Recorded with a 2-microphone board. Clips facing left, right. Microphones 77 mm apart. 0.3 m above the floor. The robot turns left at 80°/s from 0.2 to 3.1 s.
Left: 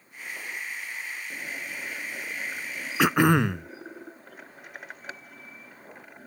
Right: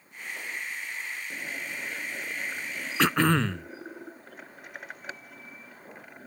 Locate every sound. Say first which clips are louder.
3.0 s throat clearing: left 3 dB; 5° left (ahead or behind); by 3.7 s 15° left (ahead or behind)